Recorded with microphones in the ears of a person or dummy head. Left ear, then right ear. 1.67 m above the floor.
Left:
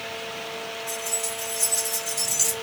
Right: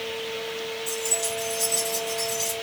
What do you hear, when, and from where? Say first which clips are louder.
0.9 s keys jangling: right 3 dB; 45° right (ahead or behind), 0.8 m; by 2.5 s 40° left (ahead or behind), 1.0 m